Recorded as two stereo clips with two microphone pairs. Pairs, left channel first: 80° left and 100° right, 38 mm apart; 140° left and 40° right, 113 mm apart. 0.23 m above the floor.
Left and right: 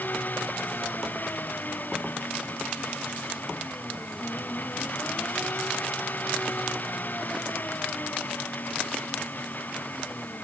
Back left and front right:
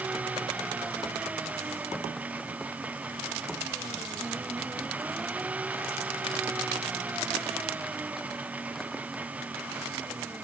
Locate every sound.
0.0 s an engine running: 40° left